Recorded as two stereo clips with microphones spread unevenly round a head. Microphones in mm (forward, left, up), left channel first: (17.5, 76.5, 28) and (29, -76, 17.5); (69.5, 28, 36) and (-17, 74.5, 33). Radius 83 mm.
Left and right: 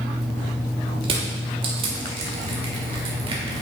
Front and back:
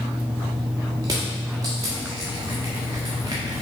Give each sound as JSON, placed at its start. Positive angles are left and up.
{"t": 1.0, "sound": "crushing", "azimuth_deg": -145, "distance_m": 1.0}